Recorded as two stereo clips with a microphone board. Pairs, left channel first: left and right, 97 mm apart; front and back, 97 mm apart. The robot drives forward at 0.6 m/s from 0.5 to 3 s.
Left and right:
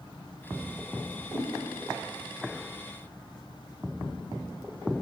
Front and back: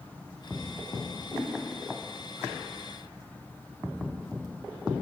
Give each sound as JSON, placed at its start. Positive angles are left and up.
{"t": 1.3, "sound": "a whoosh", "azimuth_deg": 145, "distance_m": 1.8}